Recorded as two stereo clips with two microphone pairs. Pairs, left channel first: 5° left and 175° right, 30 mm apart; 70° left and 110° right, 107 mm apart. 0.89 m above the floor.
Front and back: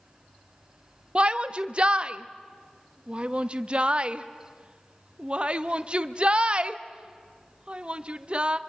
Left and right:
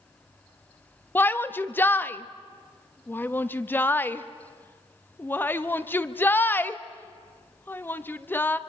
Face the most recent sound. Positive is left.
turn(degrees=135)